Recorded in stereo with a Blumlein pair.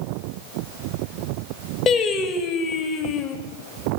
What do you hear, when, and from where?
1.9 s singing: 20° left, 1.2 m